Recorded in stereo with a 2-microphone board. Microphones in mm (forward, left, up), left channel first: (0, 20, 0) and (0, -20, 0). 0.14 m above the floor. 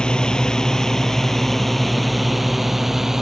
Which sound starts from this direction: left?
A drone, at 0.0 s.